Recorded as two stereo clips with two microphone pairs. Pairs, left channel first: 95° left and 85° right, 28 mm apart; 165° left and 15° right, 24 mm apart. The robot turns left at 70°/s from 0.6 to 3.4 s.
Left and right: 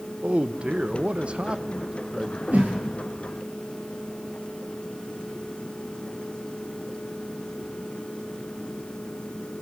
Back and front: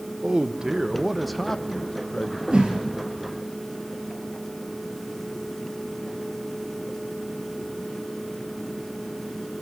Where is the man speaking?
60° right, 1.0 m; by 2.4 s 175° left, 1.0 m.